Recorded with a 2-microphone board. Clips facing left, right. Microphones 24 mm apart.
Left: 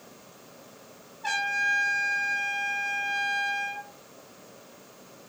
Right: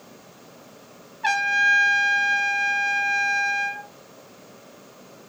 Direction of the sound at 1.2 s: 60° right (ahead or behind).